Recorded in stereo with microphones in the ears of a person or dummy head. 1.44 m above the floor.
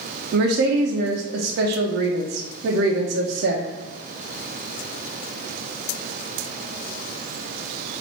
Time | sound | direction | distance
0.3 | a woman speaking | 65° right (ahead or behind) | 0.6 m